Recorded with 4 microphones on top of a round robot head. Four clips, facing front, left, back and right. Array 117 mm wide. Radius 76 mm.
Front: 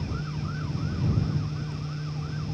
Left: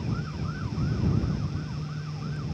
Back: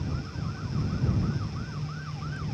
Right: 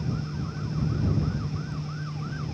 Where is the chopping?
No chopping in this recording.